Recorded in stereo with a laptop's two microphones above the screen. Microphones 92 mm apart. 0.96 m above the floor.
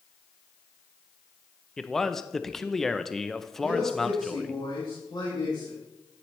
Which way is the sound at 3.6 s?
50° left (ahead or behind).